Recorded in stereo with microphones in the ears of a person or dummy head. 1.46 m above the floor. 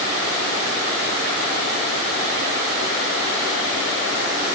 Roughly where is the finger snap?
No finger snap in this recording.